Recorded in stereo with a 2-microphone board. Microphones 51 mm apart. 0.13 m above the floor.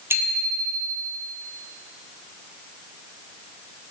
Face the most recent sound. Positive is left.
turn(degrees=-50)  # may be behind; listen again after turning